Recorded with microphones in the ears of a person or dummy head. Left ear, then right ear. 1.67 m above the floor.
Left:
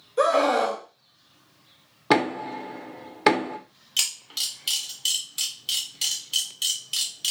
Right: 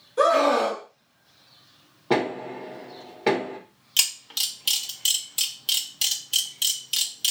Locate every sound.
0.2 s a scream: centre (ahead or behind), 0.7 m
2.1 s knocking: 55° left (ahead or behind), 0.9 m
4.0 s a camera shutter: 5° right (ahead or behind), 0.7 m